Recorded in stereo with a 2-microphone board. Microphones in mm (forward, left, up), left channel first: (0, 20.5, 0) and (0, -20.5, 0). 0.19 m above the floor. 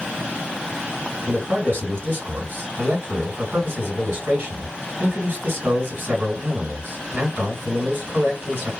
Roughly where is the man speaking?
Right.